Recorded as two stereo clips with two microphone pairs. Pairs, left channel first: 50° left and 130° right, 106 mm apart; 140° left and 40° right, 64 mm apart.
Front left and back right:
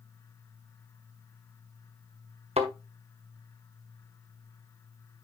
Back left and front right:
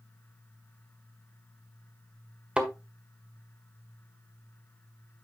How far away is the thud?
About 1.5 m.